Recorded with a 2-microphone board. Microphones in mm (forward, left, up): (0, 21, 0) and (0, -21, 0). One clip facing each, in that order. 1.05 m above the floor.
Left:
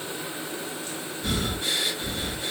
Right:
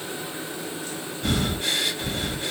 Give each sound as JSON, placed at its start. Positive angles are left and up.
{"t": 1.2, "sound": "breathing", "side_deg": -65, "distance_m": 1.5}